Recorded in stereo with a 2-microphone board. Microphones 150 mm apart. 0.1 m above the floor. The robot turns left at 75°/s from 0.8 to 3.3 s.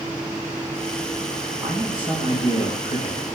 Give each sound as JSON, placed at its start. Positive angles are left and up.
{"t": 1.6, "sound": "a man speaking", "azimuth_deg": -165, "distance_m": 6.0}